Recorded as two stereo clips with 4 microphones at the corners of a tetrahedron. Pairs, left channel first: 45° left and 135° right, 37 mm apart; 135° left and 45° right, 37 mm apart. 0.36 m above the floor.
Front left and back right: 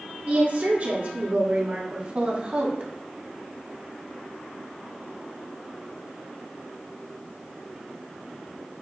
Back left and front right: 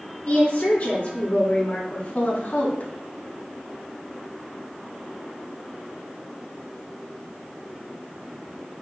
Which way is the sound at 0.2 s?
170° right.